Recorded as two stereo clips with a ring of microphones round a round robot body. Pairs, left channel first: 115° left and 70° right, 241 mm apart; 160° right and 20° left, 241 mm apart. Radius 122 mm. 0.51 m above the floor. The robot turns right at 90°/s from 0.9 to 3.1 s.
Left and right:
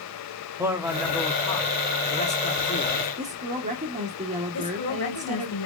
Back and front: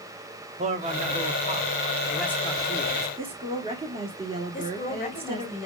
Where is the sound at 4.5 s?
140° left, 2 m.